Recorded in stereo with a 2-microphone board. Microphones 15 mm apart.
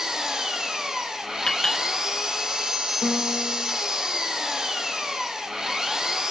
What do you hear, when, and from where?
0.0 s an engine running: 45° right (ahead or behind), 1.0 m
1.5 s a clink: 45° left (ahead or behind), 2.5 m
3.0 s a piano: 25° right (ahead or behind), 3.5 m